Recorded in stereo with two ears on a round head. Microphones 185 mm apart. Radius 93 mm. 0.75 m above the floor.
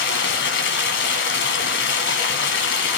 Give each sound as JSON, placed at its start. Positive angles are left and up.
{"t": 0.0, "sound": "running water", "side_deg": 55, "distance_m": 2.0}